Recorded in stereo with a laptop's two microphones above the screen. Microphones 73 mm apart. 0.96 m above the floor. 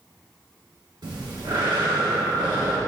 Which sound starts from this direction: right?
Breathing, at 1.0 s.